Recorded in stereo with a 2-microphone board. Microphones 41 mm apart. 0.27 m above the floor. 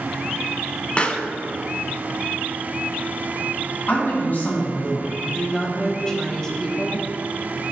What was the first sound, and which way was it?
A pop, 30° left (ahead or behind).